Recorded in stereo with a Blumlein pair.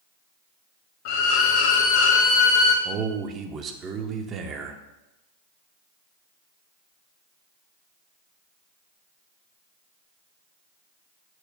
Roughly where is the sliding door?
I don't hear a sliding door.